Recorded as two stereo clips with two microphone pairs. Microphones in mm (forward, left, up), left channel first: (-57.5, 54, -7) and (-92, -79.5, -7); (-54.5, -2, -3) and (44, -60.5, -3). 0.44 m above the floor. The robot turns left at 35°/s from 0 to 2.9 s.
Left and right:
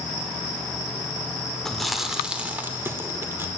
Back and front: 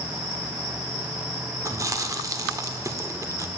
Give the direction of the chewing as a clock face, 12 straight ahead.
12 o'clock.